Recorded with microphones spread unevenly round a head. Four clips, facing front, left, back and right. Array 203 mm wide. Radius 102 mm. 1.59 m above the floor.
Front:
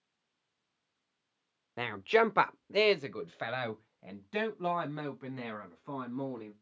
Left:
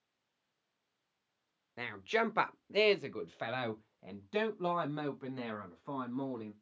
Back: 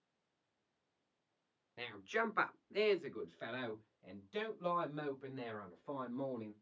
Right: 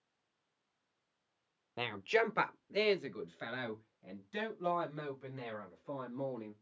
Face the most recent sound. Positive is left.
turn(degrees=50)